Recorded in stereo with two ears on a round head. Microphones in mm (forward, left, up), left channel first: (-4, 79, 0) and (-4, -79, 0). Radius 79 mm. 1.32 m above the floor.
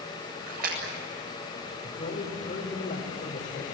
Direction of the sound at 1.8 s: 45° left (ahead or behind).